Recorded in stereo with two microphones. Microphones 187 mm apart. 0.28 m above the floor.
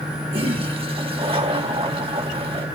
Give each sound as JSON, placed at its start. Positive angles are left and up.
{"t": 0.3, "sound": "a toilet flushing", "side_deg": -30, "distance_m": 1.5}